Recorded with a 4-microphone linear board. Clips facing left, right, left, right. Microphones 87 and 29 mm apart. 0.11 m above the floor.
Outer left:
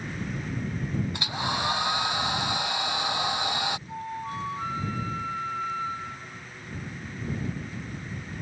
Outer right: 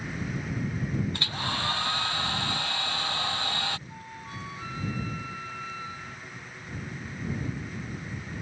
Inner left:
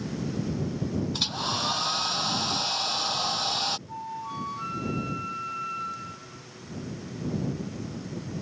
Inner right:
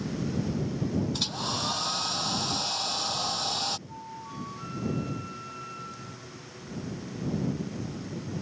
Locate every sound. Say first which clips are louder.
1.1 s a hair dryer: outer left 3 dB, inner left 2 dB; 15° left (ahead or behind)
3.9 s a flute: outer left 8 dB, inner left 6 dB; 40° left (ahead or behind)